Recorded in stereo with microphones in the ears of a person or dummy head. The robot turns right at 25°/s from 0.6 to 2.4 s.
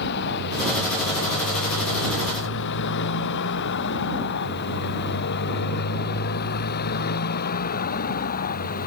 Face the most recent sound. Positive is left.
turn(degrees=50)  # may be behind; listen again after turning